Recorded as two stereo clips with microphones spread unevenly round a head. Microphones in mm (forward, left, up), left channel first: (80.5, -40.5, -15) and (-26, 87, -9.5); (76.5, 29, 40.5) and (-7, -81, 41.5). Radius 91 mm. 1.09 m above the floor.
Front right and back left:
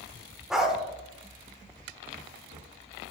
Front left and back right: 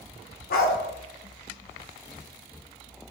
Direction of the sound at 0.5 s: 45° left.